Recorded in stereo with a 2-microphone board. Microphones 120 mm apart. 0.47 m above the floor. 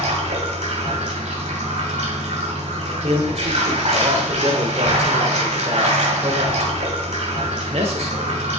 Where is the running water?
65° right (ahead or behind), 2.0 m.